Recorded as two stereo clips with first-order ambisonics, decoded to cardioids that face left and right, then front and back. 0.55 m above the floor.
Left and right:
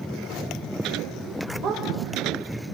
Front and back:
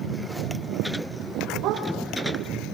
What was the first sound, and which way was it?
A dog barking, 135° right.